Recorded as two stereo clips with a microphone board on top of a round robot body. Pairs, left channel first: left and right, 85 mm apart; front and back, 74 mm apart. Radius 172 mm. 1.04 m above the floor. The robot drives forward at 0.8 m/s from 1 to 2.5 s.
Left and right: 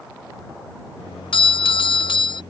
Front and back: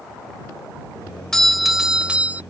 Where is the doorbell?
85° left; by 2.4 s 110° left.